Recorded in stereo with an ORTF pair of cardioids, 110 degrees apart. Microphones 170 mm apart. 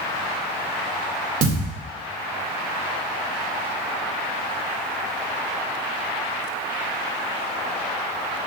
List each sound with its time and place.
1.4 s a thud: 55° right, 2.5 m